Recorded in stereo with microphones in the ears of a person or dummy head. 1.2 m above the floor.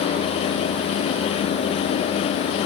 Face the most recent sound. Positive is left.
No sound to turn to.